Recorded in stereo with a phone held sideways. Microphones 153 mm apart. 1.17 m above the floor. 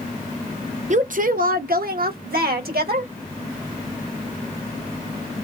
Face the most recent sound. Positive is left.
turn(degrees=-85)